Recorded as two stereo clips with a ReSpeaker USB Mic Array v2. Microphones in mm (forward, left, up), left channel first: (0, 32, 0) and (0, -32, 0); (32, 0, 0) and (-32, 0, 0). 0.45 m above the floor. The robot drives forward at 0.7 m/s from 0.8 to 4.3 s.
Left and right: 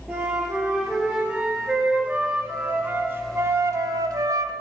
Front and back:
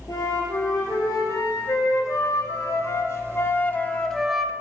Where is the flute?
15° right, 2.5 m; by 4.5 s 95° right, 0.6 m.